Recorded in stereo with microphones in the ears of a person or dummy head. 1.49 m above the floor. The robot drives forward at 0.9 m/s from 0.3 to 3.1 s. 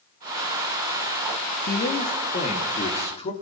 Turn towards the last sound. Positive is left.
turn(degrees=35)  # may be behind; listen again after turning